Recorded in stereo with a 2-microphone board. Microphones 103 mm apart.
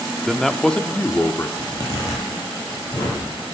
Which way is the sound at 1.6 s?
40° left (ahead or behind).